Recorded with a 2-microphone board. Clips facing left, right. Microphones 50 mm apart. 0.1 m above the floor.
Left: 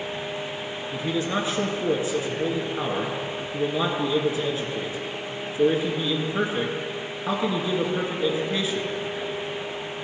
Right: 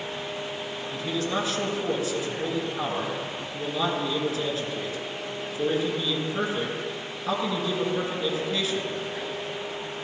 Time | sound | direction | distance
0.9 | a man speaking | 25° left (ahead or behind) | 1.6 m